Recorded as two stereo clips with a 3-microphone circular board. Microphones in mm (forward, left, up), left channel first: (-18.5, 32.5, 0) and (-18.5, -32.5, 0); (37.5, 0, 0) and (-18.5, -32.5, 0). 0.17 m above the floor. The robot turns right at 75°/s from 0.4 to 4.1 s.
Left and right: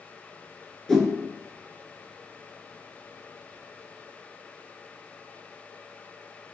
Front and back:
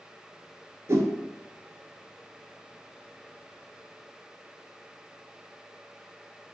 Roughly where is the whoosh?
Behind.